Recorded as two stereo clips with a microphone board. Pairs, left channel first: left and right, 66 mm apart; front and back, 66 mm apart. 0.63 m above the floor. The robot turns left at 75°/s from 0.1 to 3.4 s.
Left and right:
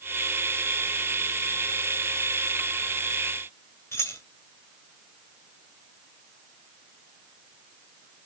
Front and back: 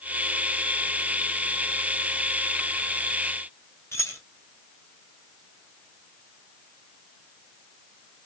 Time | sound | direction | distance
3.9 | keys jangling | 45° left | 2 m